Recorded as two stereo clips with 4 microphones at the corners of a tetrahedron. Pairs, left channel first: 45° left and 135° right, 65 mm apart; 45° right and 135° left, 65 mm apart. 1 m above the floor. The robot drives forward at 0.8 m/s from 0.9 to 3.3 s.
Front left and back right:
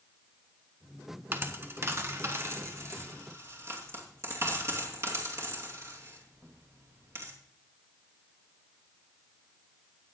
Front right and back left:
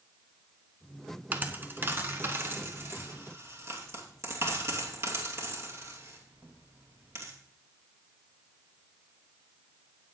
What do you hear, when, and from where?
1.3 s a dropped coin: 175° right, 1.2 m; by 7.3 s straight behind, 2.5 m